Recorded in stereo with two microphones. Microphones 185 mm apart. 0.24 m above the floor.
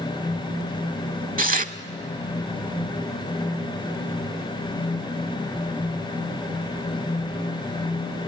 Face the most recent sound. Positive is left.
turn(degrees=-50)  # may be behind; listen again after turning